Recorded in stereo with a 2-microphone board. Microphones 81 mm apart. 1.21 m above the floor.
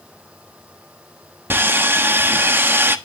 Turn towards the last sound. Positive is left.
turn(degrees=-25)  # may be behind; listen again after turning